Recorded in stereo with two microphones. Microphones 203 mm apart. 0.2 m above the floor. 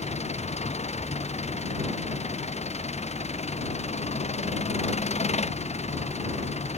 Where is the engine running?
35° left (ahead or behind).